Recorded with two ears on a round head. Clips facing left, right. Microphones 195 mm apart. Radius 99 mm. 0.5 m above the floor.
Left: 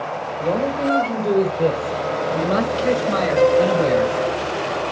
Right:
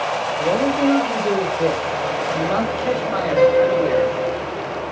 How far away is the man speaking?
About 1.8 m.